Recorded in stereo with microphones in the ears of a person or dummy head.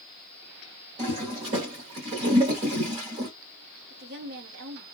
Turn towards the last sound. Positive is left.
turn(degrees=-55)  # may be behind; listen again after turning